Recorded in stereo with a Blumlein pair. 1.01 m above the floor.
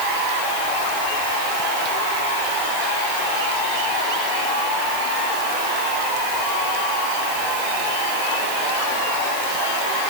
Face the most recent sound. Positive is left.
No sound to turn to.